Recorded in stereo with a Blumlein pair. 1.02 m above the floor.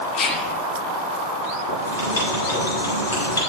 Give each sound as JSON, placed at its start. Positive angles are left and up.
{"t": 0.1, "sound": "whispering", "azimuth_deg": 35, "distance_m": 2.0}
{"t": 1.7, "sound": "writing", "azimuth_deg": 65, "distance_m": 6.0}